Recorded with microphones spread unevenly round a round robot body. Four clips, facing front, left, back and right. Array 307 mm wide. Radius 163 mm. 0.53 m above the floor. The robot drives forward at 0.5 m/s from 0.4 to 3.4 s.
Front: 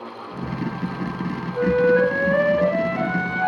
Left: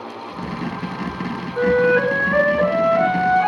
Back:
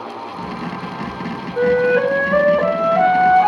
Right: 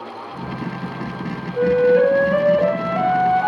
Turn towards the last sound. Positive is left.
turn(degrees=-165)